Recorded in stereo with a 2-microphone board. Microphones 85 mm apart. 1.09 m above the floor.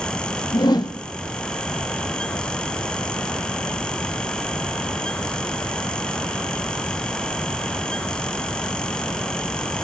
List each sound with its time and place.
0.5 s a whoosh: 50° left (ahead or behind), 1.9 m